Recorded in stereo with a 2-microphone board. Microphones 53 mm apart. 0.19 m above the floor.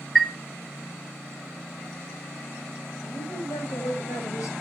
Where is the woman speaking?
80° left, 6.5 m.